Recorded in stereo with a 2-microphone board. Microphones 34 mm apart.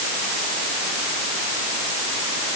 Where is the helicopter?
No helicopter in this recording.